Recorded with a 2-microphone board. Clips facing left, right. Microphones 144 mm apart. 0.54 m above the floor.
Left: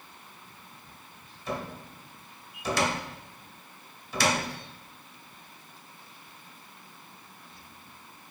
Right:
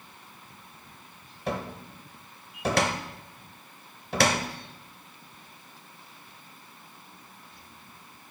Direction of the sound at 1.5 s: 60° right (ahead or behind).